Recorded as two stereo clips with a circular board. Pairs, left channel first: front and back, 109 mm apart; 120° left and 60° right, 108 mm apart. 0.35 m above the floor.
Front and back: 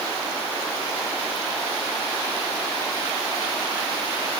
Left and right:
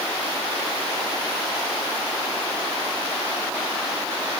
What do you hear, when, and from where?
Only background noise.